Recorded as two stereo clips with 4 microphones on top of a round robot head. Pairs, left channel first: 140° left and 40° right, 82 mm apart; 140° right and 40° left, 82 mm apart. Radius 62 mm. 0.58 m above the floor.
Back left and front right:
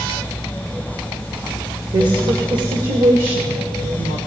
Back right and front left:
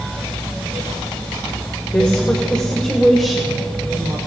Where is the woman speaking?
75° right, 2 m; by 4.2 s 40° right, 2.5 m.